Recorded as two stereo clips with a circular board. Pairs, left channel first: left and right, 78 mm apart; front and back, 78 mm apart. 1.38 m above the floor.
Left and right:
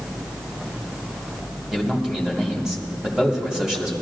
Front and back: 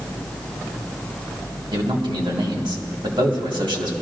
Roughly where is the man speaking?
Behind.